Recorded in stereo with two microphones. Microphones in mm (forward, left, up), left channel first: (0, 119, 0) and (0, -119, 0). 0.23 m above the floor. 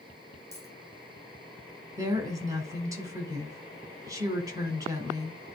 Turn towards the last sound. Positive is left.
turn(degrees=-15)  # may be behind; listen again after turning